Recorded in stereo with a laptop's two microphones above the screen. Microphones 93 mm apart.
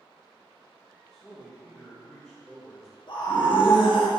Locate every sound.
1.1 s a man speaking: 5° left (ahead or behind), 1.4 m
3.1 s a scream: 50° left (ahead or behind), 1.3 m